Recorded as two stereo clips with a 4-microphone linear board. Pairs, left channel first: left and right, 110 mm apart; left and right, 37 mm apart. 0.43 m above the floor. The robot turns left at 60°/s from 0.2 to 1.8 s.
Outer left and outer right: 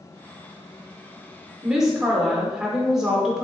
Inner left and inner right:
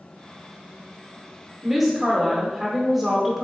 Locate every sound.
1.6 s a woman speaking: 10° right (ahead or behind), 0.8 m; by 3.4 s 5° right (ahead or behind), 0.8 m